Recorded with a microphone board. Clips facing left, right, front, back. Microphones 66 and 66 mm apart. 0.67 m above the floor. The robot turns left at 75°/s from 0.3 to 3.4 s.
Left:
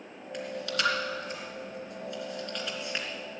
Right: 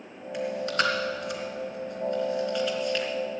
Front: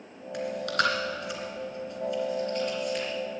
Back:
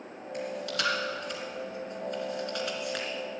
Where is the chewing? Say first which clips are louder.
Right 6 dB, front 5 dB; 5° right, 3 m; by 3.1 s 150° left, 3 m.